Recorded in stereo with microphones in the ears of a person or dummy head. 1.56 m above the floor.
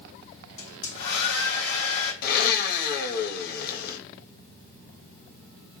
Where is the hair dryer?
65° left (ahead or behind), 1.6 m.